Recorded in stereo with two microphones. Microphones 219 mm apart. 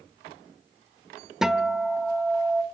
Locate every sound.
1.4 s a guitar: centre (ahead or behind), 1.0 m